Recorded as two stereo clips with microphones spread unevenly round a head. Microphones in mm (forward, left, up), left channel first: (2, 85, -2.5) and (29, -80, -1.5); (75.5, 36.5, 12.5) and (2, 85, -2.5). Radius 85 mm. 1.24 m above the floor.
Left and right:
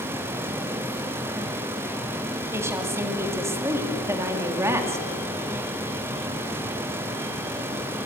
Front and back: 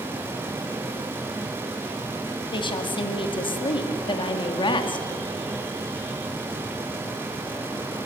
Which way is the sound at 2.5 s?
5° right.